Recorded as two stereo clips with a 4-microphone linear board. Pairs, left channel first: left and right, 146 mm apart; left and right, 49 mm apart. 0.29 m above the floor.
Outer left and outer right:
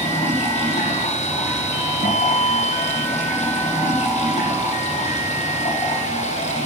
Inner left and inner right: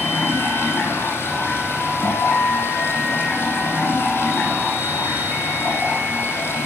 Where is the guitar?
55° left (ahead or behind), 0.7 m.